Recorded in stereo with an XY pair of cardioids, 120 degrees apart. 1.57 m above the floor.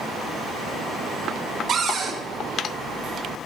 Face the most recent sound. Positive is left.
turn(degrees=-60)